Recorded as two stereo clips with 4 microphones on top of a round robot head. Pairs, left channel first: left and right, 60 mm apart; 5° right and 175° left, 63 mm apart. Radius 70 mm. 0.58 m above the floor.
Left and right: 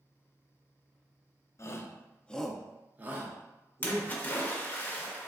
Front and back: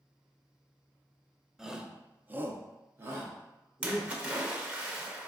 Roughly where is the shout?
Left.